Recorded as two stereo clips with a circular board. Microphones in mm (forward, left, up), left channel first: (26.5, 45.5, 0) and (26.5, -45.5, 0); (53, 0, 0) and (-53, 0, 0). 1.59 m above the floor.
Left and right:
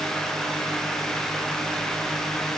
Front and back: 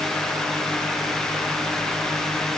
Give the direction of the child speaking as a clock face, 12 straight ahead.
I don't hear a child speaking.